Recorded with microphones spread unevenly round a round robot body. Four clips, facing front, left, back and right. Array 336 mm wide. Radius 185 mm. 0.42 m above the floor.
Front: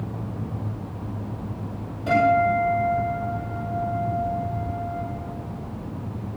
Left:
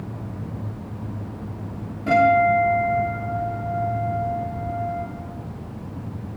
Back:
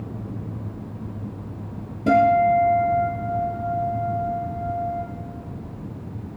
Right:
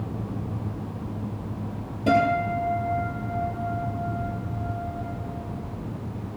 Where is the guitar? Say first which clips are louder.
Left 5 dB, back 3 dB; 165° right, 5.5 m.